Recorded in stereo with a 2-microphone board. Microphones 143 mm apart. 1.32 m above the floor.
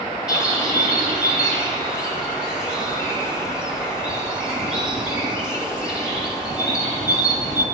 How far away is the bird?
About 5.5 m.